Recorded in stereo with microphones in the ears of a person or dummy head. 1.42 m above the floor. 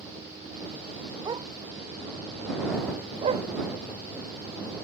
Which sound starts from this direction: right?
A dog barking, at 1.2 s.